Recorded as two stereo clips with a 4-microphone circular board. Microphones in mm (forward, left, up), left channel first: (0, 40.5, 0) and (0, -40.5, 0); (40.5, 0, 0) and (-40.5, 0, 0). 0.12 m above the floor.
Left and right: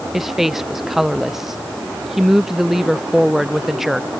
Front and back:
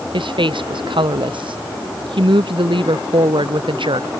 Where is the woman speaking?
175° right.